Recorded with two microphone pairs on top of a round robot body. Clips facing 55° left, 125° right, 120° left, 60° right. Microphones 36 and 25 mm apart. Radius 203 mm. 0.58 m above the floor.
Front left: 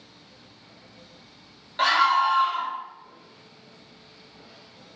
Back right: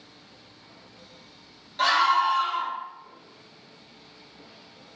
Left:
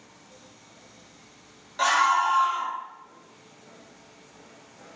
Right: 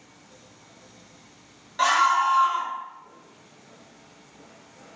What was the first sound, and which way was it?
A scream, 30° left.